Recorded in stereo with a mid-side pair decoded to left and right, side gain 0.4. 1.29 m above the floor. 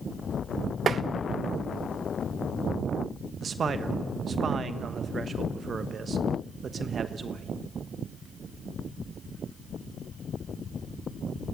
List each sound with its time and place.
0.9 s tapping: 55° right, 0.8 m
3.4 s a man speaking: 50° right, 1.0 m